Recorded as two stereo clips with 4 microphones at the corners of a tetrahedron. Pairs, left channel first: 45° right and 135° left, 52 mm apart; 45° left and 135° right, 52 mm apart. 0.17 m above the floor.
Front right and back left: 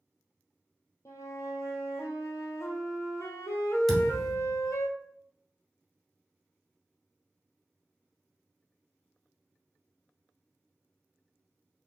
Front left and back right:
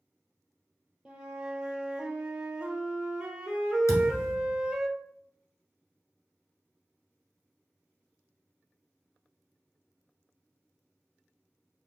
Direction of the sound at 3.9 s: 45° left.